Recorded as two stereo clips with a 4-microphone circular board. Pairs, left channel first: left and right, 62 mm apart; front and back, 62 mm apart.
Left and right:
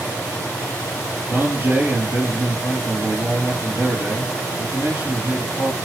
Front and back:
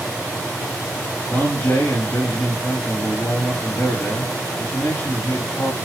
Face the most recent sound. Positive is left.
turn(degrees=-35)